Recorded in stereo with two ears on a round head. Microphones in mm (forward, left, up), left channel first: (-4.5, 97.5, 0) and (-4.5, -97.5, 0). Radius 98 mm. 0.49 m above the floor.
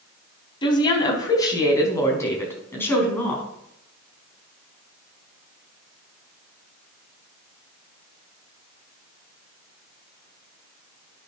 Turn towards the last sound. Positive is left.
turn(degrees=10)  # may be behind; listen again after turning